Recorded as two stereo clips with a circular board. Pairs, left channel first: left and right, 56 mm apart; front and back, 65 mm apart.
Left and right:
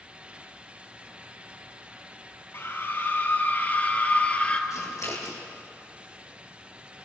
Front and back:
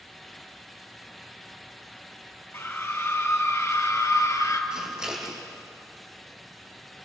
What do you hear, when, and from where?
2.5 s a scream: 50° left, 3 m; by 4.6 s 25° left, 2.5 m
4.7 s scissors: 100° left, 4.5 m